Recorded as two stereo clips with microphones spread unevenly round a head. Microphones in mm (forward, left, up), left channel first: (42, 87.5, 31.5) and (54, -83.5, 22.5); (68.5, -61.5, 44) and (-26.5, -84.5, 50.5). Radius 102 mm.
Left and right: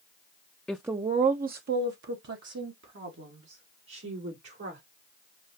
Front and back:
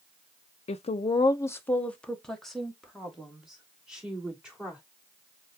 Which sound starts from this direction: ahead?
A woman speaking, at 0.7 s.